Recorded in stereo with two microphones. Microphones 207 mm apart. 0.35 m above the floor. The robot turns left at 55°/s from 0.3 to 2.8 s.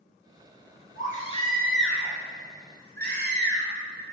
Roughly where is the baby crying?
Ahead left.